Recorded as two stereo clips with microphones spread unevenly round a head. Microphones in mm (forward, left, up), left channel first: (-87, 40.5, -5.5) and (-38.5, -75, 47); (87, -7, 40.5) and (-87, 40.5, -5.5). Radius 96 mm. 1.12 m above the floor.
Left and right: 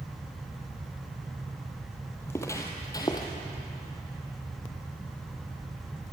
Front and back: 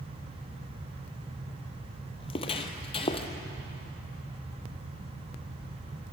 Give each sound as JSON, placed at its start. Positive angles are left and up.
{"t": 2.2, "sound": "footsteps", "azimuth_deg": 15, "distance_m": 1.6}